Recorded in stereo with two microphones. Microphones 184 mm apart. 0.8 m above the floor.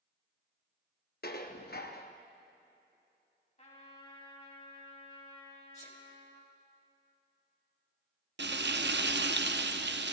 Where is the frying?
70° right (ahead or behind), 0.5 m.